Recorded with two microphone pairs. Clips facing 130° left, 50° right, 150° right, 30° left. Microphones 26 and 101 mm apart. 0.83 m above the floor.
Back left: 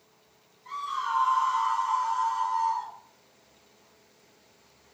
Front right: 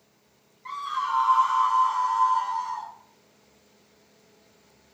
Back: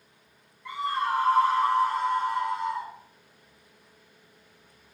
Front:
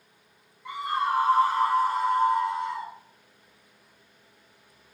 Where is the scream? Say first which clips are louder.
Front right 3 dB, front 1 dB; 45° right, 2.5 m; by 2.9 s 60° right, 3.5 m.